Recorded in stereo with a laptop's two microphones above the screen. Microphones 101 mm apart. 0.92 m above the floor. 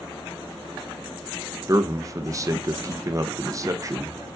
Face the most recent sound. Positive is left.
turn(degrees=-35)  # may be behind; listen again after turning